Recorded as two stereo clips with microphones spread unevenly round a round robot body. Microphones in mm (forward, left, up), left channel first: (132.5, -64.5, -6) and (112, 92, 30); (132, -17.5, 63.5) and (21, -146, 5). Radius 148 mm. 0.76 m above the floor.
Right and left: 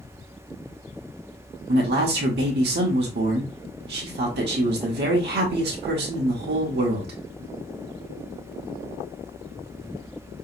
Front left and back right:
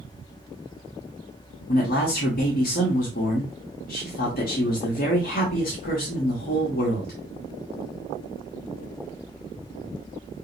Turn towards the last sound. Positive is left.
turn(degrees=105)